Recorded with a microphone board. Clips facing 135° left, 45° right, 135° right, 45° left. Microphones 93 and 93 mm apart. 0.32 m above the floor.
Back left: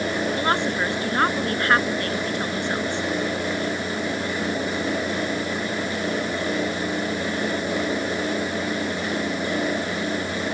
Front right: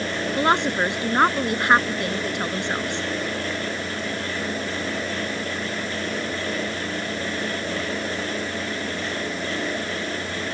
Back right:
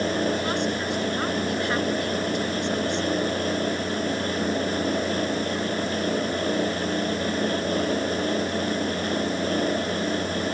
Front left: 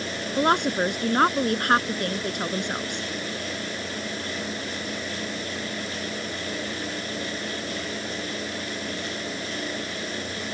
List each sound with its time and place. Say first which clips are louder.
0.4 s a woman speaking: front right 6 dB, front left 4 dB; 25° left